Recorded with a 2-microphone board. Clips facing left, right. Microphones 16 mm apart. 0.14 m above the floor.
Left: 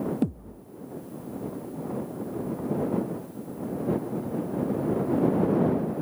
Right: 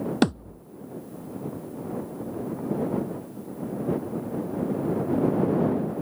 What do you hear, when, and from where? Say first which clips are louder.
0.2 s a thud: right 5 dB; 80° right